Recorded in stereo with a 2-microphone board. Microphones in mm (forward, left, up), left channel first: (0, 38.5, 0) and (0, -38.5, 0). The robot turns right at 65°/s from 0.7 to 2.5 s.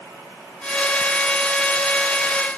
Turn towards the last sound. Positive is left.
No sound to turn to.